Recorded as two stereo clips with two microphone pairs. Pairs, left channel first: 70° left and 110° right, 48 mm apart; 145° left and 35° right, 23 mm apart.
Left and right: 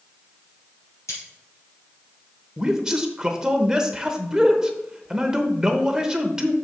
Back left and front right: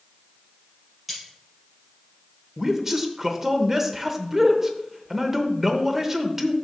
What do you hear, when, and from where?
1.1 s cutlery clinking: 50° left, 4.5 m
2.6 s a man speaking: 60° right, 0.8 m